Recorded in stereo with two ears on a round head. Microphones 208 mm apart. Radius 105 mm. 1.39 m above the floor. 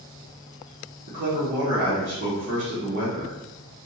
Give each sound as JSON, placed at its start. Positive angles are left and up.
{"t": 1.1, "sound": "a man speaking", "side_deg": -50, "distance_m": 1.2}